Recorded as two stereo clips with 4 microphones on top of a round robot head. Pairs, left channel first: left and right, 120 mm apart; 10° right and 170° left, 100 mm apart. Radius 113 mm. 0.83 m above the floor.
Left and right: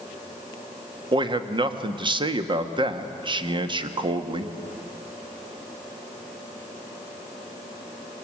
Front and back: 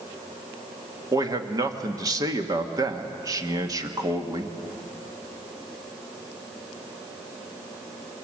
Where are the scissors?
No scissors in this recording.